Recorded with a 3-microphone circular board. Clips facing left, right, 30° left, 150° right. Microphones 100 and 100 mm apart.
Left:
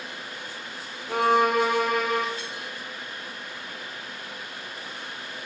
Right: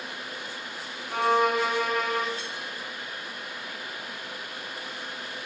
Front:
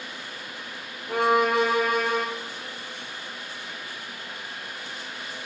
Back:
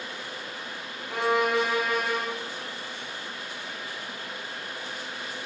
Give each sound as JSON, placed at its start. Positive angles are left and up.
{"t": 1.1, "sound": "a violin", "azimuth_deg": 70, "distance_m": 1.3}